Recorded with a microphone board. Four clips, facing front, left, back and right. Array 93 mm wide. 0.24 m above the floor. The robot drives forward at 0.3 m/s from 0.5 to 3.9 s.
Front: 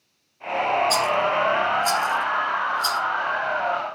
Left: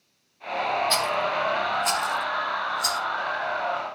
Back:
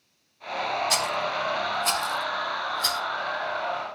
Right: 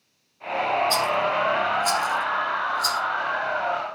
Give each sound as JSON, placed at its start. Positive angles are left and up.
{"t": 0.9, "sound": "a rattle", "azimuth_deg": 140, "distance_m": 0.6}